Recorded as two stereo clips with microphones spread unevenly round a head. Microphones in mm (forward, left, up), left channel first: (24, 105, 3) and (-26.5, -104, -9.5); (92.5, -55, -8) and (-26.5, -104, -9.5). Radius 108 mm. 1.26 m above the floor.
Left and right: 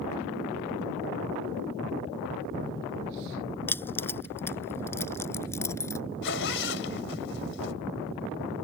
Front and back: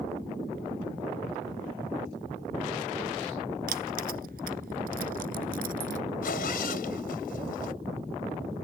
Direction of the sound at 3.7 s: 155° left.